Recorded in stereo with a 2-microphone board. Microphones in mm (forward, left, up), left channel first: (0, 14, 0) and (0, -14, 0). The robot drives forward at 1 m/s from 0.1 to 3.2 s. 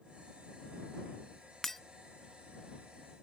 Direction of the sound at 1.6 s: 10° left (ahead or behind).